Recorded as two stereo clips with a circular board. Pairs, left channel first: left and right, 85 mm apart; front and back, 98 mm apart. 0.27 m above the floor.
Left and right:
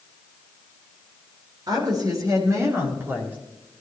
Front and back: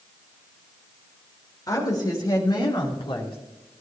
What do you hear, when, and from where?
1.7 s a woman speaking: 50° right, 4.5 m; by 3.4 s 20° right, 3 m